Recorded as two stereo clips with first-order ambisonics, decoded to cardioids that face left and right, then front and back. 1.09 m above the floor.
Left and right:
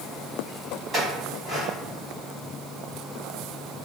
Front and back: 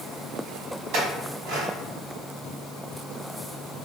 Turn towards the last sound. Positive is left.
turn(degrees=-160)